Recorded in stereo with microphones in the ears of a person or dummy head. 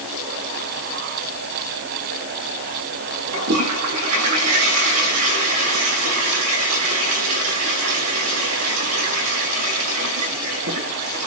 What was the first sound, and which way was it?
A toilet flushing, 75° right (ahead or behind).